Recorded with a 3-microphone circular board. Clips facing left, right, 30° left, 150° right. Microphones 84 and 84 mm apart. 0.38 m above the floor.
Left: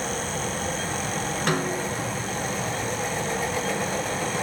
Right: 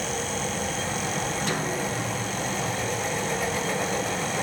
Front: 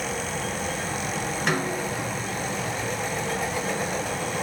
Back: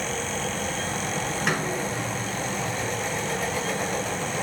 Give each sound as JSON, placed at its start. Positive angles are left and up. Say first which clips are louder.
{"t": 1.5, "sound": "a snare drum", "louder": "left 2 dB, front 2 dB", "azimuth_deg": 125, "distance_m": 1.4}